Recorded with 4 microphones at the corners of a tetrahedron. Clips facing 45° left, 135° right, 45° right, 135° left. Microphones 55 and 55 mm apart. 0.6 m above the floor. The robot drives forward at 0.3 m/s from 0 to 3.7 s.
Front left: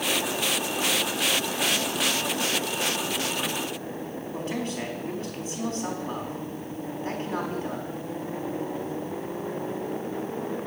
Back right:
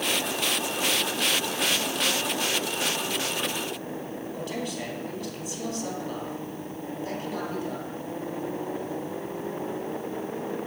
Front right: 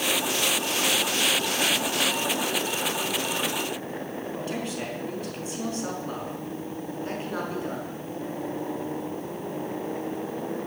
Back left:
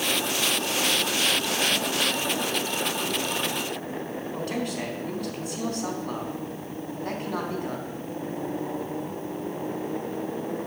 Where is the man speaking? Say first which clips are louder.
Front left 3 dB, back left 3 dB; 100° left, 4 m.